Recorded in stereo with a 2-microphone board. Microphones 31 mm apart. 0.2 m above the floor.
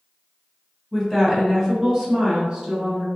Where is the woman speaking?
5° left (ahead or behind), 1.0 m; by 3.1 s 20° right (ahead or behind), 1.3 m.